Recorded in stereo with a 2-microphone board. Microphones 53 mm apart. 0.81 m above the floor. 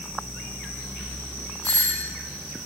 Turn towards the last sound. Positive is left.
turn(degrees=45)  # may be behind; listen again after turning